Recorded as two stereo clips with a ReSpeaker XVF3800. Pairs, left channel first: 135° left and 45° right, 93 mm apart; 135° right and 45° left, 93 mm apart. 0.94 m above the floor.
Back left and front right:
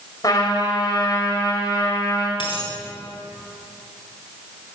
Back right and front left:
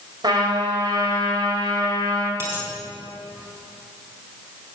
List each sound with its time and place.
0.2 s a trumpet: 85° left, 3.5 m
2.4 s a dropped coin: 105° left, 3.5 m